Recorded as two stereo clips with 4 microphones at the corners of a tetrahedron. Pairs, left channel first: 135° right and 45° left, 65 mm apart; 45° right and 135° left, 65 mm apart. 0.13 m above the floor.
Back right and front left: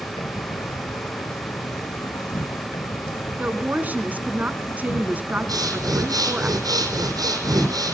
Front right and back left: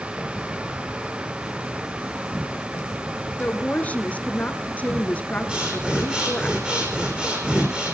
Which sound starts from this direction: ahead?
A woman speaking, at 3.4 s.